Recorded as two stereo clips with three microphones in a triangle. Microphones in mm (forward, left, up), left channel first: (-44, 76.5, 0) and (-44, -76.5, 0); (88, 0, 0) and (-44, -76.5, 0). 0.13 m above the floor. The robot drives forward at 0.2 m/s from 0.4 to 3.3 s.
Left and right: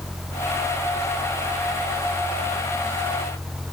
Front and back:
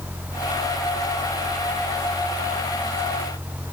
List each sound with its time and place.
Only background noise.